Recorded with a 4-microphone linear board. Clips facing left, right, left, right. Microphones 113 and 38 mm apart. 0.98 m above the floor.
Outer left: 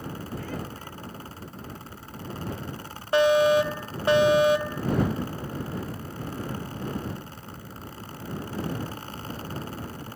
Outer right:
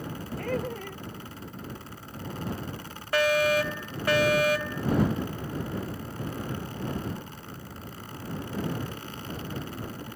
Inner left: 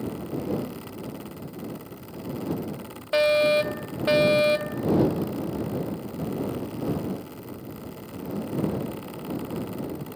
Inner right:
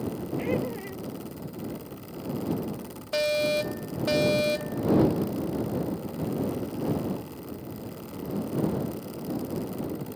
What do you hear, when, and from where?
0.4 s laughter: 55° right (ahead or behind)
3.1 s a fire alarm: 20° left (ahead or behind)